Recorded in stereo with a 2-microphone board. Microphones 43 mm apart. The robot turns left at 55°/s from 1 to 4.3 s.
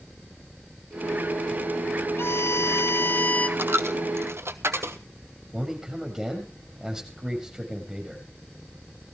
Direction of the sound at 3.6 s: 60° right (ahead or behind).